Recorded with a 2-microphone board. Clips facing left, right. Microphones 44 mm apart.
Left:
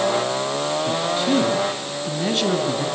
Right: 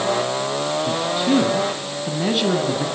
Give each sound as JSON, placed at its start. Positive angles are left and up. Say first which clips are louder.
{"t": 0.8, "sound": "a man speaking", "louder": "right 2 dB", "side_deg": -10, "distance_m": 2.5}